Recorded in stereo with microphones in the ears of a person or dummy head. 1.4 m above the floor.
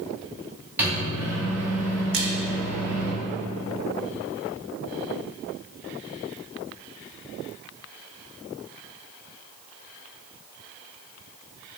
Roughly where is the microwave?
Centre.